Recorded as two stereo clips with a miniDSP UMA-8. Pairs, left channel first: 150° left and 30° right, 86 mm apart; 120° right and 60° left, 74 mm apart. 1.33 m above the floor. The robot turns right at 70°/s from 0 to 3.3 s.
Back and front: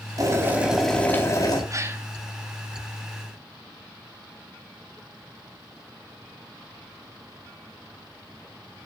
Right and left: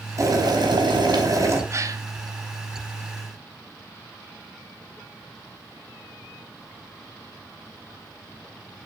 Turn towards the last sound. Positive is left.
turn(degrees=125)